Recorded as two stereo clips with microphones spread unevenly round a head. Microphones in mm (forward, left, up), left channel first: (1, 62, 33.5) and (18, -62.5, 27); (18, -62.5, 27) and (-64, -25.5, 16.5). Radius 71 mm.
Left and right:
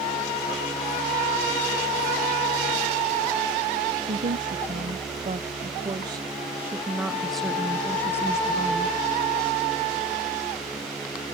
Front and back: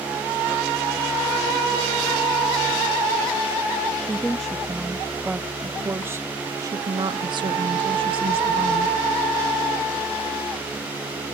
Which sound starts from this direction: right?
A woman speaking, at 4.0 s.